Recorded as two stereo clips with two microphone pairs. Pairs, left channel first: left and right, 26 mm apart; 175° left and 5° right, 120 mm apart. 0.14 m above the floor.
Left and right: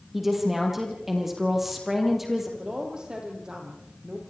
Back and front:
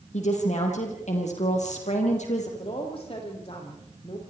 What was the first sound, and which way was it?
A woman speaking, 170° right.